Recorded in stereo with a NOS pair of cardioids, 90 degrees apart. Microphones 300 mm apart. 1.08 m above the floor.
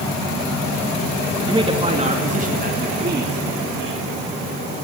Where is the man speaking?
15° right, 1.9 m; by 4.0 s 40° right, 3.5 m.